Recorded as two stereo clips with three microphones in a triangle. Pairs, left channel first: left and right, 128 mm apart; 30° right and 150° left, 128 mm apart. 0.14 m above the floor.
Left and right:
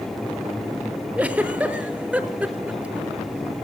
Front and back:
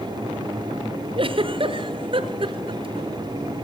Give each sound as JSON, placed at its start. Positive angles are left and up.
{"t": 1.2, "sound": "a giggle", "azimuth_deg": -170, "distance_m": 0.9}